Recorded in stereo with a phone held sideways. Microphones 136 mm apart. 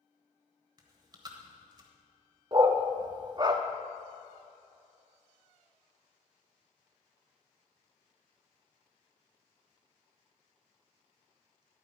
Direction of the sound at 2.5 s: 30° right (ahead or behind).